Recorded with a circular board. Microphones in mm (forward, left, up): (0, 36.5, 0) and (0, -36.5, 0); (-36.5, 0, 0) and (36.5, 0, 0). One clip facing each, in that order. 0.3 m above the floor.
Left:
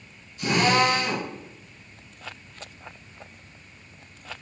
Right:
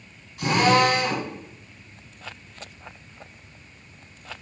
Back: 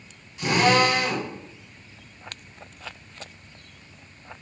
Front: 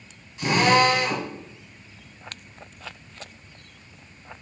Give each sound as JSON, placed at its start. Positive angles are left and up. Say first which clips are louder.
{"t": 0.4, "sound": "a drill", "louder": "right 2 dB, front 1 dB", "azimuth_deg": -95, "distance_m": 1.9}